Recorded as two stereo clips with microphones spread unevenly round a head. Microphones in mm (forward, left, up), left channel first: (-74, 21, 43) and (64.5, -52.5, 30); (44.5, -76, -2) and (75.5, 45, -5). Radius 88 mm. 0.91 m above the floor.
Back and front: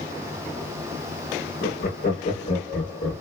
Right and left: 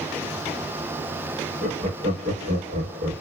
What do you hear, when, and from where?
1.6 s laughter: 130° left, 1.6 m; by 3.2 s 95° left, 1.6 m